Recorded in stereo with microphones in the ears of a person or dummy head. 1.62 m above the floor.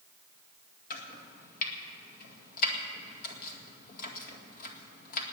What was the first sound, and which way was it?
Chopping, 50° left (ahead or behind).